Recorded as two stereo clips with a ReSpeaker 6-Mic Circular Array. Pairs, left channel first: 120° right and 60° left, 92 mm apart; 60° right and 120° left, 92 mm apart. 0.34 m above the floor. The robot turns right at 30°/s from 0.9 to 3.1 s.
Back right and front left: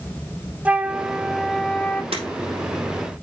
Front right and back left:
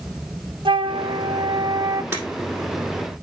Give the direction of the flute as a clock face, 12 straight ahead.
7 o'clock.